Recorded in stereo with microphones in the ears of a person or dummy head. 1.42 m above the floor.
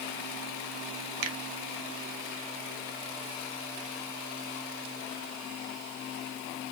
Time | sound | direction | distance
1.2 | a finger snap | 75° right (ahead or behind) | 0.8 m